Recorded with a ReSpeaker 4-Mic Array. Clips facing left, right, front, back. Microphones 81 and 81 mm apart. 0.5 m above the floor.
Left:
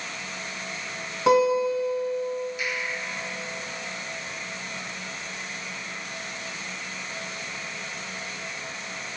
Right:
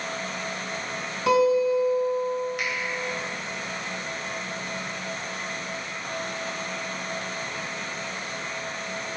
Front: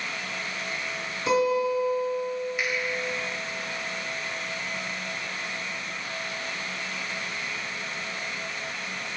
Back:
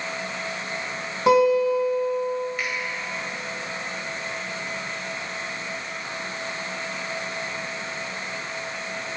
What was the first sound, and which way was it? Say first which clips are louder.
A guitar: even, back 6 dB; 155° left.